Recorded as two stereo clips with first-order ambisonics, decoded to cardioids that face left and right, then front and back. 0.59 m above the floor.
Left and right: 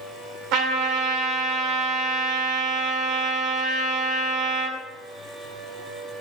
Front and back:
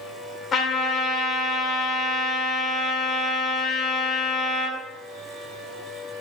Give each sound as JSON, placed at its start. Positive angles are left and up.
{"t": 0.5, "sound": "a trumpet", "azimuth_deg": -60, "distance_m": 2.0}